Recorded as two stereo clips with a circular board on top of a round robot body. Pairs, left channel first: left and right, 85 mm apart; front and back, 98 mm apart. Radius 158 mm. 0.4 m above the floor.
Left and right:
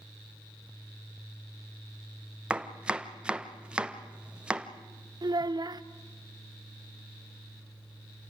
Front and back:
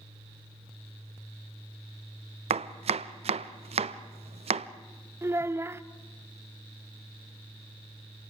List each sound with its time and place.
2.5 s chopping: 170° right, 0.7 m
5.2 s a child speaking: 120° right, 0.9 m